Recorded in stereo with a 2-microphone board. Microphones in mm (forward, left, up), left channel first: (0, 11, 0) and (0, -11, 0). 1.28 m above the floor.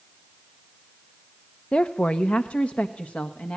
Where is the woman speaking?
55° left (ahead or behind), 0.8 m; by 3.6 s 85° left, 1.9 m.